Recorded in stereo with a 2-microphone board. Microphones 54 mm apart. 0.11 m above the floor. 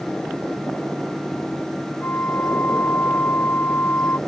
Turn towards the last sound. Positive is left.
turn(degrees=35)  # may be behind; listen again after turning